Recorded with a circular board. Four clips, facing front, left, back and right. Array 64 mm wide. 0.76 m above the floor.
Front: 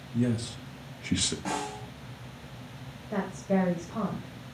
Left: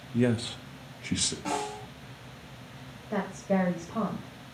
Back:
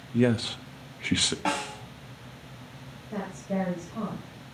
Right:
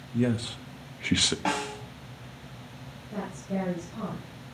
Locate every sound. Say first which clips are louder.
0.1 s a man speaking: left 1 dB, back 5 dB; 165° left, 1.0 m; by 1.4 s 120° right, 0.9 m
1.4 s a snare drum: left 1 dB, back 4 dB; 135° right, 5.5 m
3.1 s a woman speaking: left 5 dB, front 4 dB; 60° left, 4.5 m